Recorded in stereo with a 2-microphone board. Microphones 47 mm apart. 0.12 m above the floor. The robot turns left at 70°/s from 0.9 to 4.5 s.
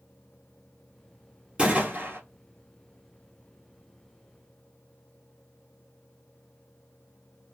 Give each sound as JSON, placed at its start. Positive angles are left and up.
{"t": 1.6, "sound": "a gunshot", "azimuth_deg": -20, "distance_m": 2.0}